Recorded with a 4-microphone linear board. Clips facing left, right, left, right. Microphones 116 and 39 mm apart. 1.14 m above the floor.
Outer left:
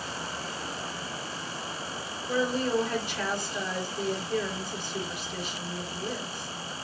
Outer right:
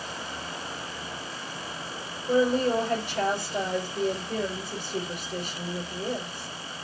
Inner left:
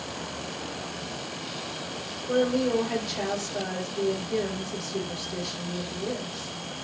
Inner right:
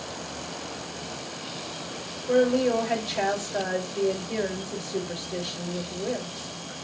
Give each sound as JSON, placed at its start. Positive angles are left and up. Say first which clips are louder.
{"t": 2.3, "sound": "a woman speaking", "louder": "outer right 5 dB, inner right 3 dB", "side_deg": -55, "distance_m": 4.5}